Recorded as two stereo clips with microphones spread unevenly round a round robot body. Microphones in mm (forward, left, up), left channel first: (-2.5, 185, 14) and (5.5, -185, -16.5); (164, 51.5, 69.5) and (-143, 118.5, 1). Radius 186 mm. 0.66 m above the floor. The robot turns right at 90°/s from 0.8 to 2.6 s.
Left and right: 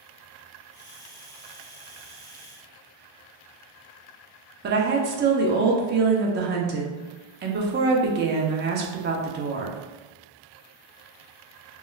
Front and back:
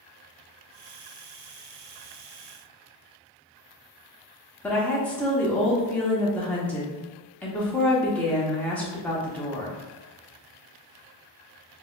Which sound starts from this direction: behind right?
A woman speaking, at 4.6 s.